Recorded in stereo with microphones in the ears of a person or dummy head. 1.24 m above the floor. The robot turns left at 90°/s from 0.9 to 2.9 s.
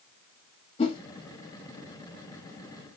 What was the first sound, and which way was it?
A whoosh, 35° left (ahead or behind).